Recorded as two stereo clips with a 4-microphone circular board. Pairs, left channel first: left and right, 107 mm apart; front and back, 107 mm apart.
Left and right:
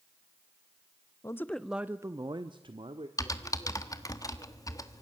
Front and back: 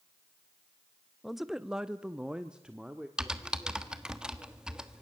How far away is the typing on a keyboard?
About 1.2 m.